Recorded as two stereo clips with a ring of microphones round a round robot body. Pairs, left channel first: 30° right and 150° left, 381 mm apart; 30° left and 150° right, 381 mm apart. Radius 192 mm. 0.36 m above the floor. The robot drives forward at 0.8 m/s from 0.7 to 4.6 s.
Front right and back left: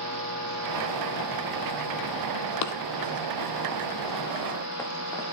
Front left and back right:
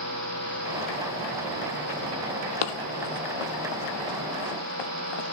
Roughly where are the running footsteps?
Ahead.